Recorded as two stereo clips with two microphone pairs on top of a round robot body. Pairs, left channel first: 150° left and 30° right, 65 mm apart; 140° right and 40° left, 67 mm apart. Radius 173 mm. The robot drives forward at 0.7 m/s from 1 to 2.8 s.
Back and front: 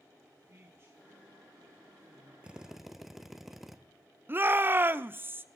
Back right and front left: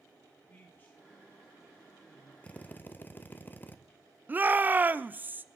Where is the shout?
5° right, 0.9 m.